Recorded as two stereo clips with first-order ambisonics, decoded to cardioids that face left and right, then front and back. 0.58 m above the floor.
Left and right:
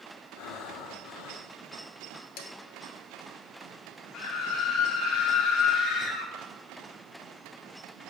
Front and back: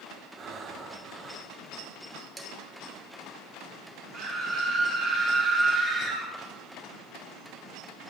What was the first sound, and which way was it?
Breathing, 115° left.